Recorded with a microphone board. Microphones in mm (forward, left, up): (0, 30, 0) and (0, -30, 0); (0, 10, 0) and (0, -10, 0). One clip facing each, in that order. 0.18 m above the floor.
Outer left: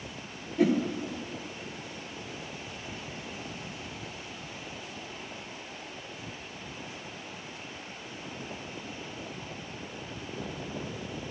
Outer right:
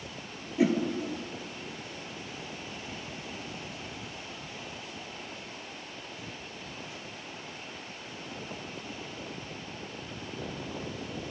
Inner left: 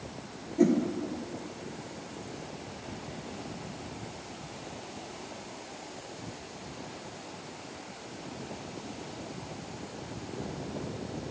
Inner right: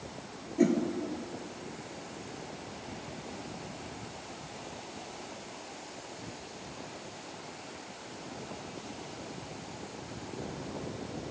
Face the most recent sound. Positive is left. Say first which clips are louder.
# outer left 1 dB, inner left 2 dB
turn(degrees=-5)  # may be behind; listen again after turning